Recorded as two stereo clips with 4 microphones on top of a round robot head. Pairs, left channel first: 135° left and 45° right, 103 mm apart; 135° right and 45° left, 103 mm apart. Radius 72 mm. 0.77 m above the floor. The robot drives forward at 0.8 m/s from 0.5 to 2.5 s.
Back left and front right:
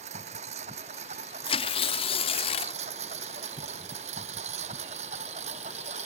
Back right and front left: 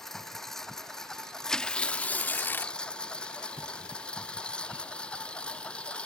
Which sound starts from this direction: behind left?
Tearing paper, at 1.5 s.